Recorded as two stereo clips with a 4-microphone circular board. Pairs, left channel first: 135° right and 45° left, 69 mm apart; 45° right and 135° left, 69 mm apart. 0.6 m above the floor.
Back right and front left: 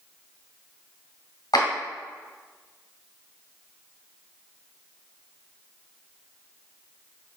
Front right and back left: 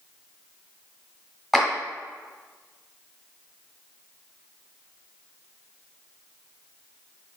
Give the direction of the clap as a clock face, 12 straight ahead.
4 o'clock.